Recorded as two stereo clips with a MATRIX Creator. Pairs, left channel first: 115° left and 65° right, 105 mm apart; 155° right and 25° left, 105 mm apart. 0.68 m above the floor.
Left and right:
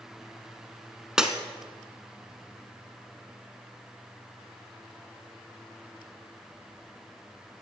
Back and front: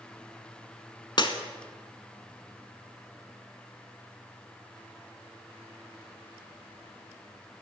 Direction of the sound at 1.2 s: 150° right.